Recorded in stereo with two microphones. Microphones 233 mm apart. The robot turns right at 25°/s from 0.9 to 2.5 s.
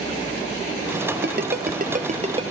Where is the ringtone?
50° right (ahead or behind), 1.1 m; by 2.5 s 25° right (ahead or behind), 1.1 m.